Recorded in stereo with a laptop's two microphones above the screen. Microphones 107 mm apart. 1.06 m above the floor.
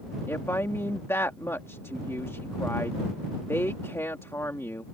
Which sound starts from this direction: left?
A woman speaking, at 0.3 s.